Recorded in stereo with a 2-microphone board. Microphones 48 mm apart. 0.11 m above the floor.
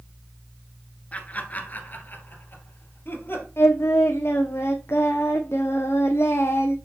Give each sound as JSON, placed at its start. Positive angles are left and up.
{"t": 1.1, "sound": "laughter", "side_deg": 30, "distance_m": 1.5}
{"t": 3.6, "sound": "singing", "side_deg": 65, "distance_m": 1.3}